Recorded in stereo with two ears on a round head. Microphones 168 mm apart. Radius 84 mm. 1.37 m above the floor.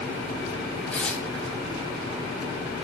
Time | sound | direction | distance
0.9 | tearing paper | 10° left (ahead or behind) | 6.5 m